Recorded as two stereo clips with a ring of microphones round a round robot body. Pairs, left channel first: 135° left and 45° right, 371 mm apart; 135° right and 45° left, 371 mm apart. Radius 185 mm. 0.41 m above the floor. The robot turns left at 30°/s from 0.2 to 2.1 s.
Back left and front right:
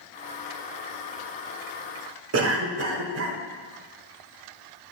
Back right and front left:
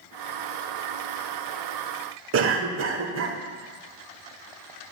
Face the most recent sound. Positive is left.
turn(degrees=0)